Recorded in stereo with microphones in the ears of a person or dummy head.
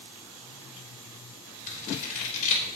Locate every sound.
1.7 s scissors: 50° left (ahead or behind), 3 m